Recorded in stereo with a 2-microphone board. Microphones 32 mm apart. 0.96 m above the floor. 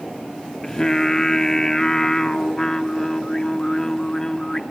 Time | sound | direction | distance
0.6 | singing | 15° left (ahead or behind) | 0.7 m